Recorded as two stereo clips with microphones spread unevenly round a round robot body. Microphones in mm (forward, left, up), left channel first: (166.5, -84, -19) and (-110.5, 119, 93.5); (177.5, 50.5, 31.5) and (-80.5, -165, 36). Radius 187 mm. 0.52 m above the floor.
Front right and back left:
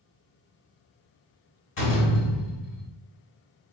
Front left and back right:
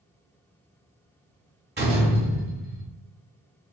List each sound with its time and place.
1.8 s a door slam: 80° right, 1.6 m